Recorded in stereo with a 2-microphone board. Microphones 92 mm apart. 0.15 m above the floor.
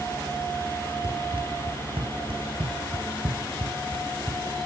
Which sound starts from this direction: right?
Running footsteps, at 1.0 s.